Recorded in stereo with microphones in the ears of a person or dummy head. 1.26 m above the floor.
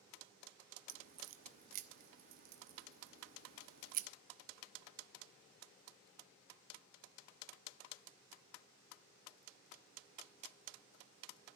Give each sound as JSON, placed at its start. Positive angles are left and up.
{"t": 0.9, "sound": "a crack", "side_deg": -50, "distance_m": 1.1}